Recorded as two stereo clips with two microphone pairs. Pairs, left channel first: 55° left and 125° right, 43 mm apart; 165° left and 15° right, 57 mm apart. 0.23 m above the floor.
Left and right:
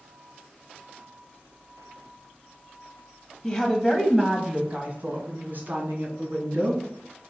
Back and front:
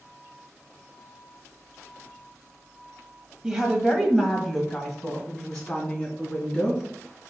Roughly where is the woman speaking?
Ahead left.